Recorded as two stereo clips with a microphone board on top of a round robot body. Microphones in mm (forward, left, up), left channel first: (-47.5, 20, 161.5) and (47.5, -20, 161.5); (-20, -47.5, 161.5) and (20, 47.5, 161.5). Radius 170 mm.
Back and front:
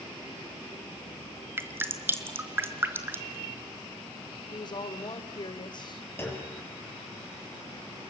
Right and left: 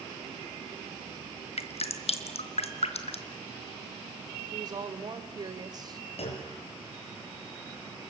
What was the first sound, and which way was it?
Dripping, 90° right.